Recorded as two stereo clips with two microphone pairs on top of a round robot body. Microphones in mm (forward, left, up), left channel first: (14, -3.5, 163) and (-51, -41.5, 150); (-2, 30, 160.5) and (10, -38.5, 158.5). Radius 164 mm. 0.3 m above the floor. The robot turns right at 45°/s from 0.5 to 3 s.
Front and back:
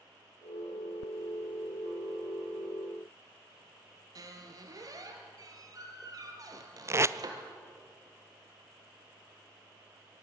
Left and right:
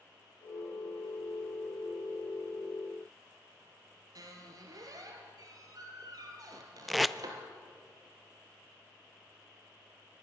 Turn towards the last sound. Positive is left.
turn(degrees=-165)